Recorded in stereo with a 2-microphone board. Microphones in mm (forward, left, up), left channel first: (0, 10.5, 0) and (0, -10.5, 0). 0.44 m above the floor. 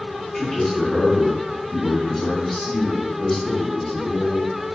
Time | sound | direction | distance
0.3 | a man speaking | 20° left (ahead or behind) | 1.3 m